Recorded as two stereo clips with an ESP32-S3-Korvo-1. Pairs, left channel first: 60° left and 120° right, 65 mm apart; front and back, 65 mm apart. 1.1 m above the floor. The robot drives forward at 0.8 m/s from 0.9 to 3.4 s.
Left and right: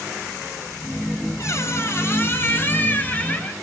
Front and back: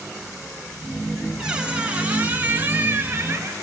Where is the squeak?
100° left, 3 m; by 3.5 s 125° left, 4 m.